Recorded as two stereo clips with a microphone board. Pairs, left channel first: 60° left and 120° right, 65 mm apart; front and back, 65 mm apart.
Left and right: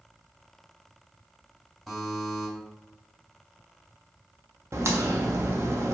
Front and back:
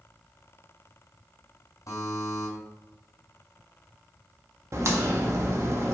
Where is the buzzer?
30° right, 2.5 m.